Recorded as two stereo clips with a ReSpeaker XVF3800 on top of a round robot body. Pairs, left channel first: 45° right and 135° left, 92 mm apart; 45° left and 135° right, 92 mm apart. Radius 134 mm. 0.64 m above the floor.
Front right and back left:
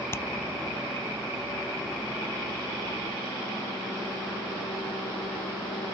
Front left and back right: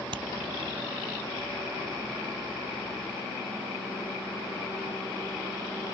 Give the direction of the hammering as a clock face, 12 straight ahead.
4 o'clock.